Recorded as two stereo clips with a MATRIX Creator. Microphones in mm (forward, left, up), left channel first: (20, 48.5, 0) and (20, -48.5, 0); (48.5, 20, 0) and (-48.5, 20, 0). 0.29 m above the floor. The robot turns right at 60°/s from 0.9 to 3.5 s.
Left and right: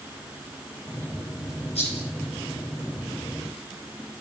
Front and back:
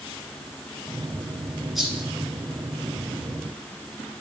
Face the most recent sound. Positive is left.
turn(degrees=-165)